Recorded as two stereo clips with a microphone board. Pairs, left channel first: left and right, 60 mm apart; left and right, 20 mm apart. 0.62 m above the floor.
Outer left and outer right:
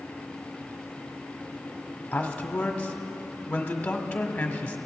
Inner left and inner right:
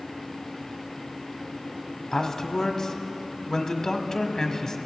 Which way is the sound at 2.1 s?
25° left (ahead or behind).